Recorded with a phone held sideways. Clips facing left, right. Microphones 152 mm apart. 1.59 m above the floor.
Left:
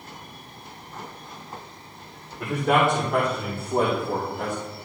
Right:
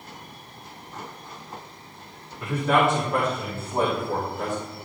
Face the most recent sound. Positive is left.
turn(degrees=45)  # may be behind; listen again after turning